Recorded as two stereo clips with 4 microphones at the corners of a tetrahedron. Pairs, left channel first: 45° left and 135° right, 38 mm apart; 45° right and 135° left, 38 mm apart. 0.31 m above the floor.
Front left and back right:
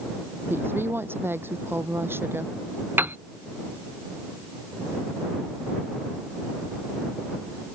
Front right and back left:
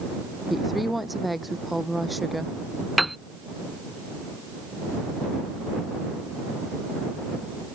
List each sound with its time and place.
0.5 s a woman speaking: 140° right
3.0 s a piano: 140° right